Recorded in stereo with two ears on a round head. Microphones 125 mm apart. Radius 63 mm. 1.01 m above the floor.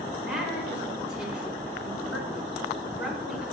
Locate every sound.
0.2 s a woman speaking: 5° right (ahead or behind), 4.5 m